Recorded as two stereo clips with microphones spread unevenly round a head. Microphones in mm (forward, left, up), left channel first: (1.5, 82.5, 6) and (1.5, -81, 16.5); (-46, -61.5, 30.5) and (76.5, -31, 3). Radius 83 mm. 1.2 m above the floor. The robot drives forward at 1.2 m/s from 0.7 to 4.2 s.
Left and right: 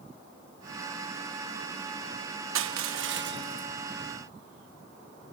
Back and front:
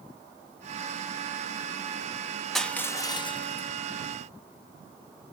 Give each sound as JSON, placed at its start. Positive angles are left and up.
{"t": 2.5, "sound": "crushing", "azimuth_deg": -80}